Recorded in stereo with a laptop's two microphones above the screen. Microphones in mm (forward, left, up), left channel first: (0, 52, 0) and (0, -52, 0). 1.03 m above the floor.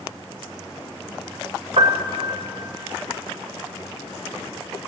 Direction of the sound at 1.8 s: 70° right (ahead or behind).